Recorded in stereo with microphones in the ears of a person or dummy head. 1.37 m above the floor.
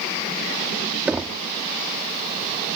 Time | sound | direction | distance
1.1 | knocking | 5° right (ahead or behind) | ?